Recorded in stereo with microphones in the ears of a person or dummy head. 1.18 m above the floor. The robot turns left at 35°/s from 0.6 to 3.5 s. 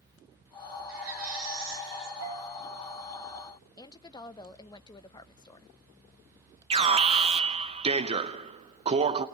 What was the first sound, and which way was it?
A baby crying, 80° right.